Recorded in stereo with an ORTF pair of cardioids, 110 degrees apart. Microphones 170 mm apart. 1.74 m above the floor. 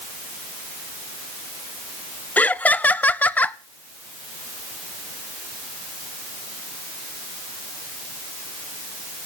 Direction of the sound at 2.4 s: 10° left.